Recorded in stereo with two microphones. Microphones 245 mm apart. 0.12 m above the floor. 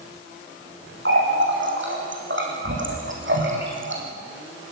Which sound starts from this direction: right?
A running tap, at 1.1 s.